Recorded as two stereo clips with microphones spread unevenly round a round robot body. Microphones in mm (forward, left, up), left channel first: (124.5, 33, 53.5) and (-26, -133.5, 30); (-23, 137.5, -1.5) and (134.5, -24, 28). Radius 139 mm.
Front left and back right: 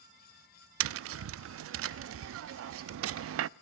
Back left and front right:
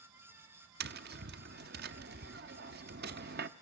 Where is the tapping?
105° right, 0.5 m.